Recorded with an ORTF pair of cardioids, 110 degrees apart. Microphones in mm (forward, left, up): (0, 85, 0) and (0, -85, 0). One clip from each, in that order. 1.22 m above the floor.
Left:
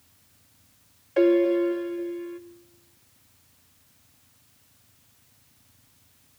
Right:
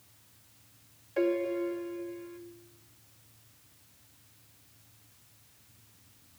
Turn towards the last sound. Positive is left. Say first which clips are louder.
# left 9 dB
turn(degrees=35)